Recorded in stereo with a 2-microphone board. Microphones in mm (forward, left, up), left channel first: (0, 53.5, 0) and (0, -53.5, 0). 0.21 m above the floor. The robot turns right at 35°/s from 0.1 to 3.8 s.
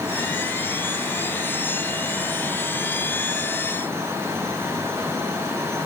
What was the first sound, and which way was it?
Only background noise.